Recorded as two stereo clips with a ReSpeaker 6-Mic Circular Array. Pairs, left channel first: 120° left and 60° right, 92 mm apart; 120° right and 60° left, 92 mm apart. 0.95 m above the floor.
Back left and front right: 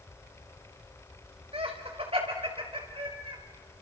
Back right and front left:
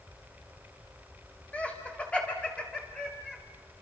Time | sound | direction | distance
1.5 | laughter | 45° right | 4.5 m